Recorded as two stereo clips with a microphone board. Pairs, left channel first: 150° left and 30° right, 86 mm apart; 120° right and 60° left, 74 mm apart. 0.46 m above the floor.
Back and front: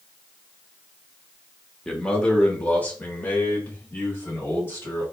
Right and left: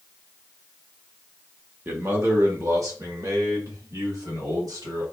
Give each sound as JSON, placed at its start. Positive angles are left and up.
{"t": 1.9, "sound": "a man speaking", "azimuth_deg": 75, "distance_m": 0.9}